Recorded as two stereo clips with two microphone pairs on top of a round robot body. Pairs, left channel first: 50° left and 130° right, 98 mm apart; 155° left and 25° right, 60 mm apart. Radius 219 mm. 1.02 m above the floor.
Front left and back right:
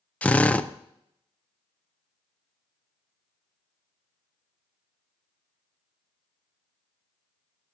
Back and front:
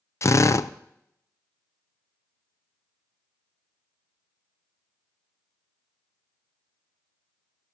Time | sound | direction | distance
0.2 | a drill | 130° left | 0.6 m